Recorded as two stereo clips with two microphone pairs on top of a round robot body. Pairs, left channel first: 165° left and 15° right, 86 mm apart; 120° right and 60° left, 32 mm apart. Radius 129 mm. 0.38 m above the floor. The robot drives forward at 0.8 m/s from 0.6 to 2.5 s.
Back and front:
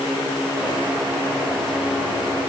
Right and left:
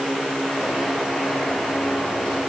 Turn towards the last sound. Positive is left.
No sound to turn to.